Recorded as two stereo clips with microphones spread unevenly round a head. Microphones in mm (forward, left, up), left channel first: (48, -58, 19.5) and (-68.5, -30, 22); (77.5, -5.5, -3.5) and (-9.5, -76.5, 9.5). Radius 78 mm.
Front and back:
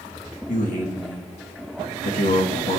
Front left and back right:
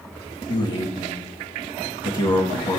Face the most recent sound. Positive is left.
turn(degrees=-5)